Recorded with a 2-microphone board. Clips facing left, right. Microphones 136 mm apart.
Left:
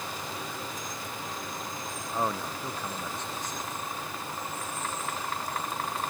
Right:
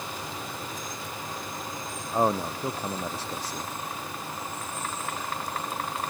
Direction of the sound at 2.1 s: 35° right (ahead or behind).